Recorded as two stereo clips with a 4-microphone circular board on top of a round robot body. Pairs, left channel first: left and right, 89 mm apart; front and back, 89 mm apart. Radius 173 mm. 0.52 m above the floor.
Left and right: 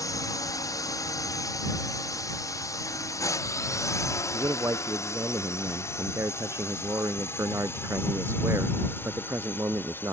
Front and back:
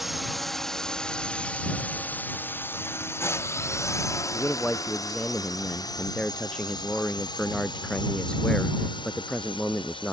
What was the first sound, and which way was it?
A drone, 95° left.